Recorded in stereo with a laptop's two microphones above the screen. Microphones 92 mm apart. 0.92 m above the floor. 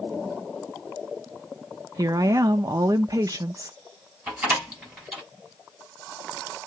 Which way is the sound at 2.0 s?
40° right (ahead or behind).